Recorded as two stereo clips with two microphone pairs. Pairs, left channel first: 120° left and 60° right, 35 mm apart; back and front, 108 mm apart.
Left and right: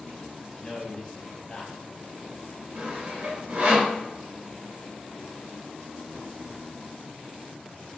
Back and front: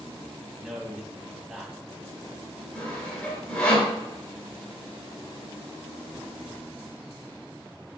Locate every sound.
0.6 s a man speaking: 80° left, 1.1 m
2.8 s sawing: 105° right, 1.8 m